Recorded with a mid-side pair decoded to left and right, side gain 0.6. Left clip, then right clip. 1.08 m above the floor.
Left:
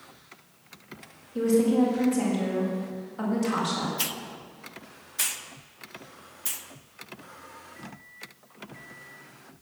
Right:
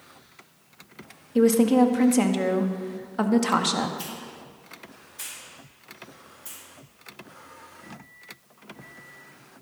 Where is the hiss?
50° left, 0.9 m.